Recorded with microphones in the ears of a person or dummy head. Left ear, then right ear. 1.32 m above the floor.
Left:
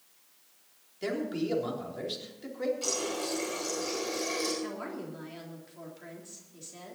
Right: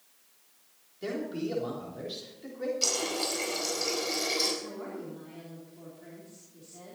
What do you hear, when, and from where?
1.0 s a man speaking: 25° left (ahead or behind), 3.5 m
2.8 s a running tap: 25° right (ahead or behind), 4.5 m
4.6 s a woman speaking: 55° left (ahead or behind), 3.5 m